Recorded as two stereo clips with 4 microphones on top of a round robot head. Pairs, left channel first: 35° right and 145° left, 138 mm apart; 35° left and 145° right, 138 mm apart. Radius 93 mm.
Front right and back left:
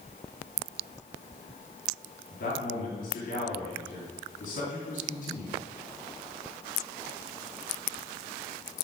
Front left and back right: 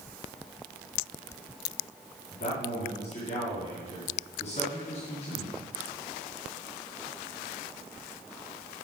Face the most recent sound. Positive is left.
turn(degrees=-10)